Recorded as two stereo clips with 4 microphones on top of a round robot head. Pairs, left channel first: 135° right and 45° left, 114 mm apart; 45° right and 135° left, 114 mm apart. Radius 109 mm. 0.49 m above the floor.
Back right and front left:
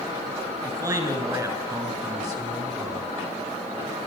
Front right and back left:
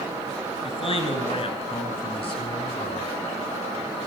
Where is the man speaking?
10° right, 6 m.